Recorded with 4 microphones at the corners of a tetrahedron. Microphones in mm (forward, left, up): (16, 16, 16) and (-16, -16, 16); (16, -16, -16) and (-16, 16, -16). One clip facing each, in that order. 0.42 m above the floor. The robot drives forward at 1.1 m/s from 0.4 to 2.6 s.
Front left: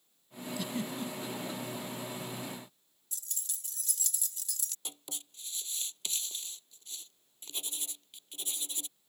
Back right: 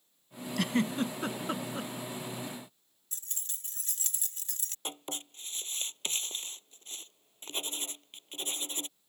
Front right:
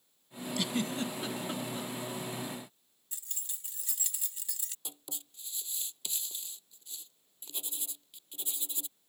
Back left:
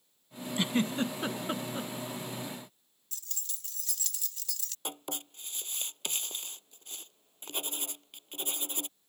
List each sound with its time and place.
0.6 s a giggle: 165° right; by 1.9 s 170° right
3.1 s keys jangling: 105° right
4.8 s writing: 170° left